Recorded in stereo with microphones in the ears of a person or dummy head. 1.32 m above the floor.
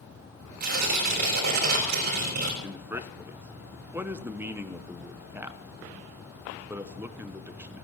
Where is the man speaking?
15° right (ahead or behind), 0.8 m.